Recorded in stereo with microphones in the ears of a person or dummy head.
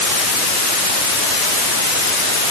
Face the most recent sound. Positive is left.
No sound to turn to.